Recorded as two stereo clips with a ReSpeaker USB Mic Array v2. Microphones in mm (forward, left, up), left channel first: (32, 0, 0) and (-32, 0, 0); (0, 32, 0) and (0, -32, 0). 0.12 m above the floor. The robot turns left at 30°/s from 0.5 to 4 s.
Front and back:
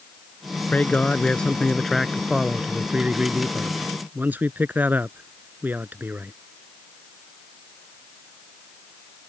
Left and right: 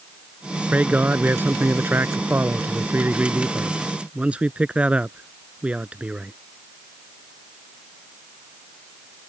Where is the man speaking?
45° right; by 6.3 s 145° right.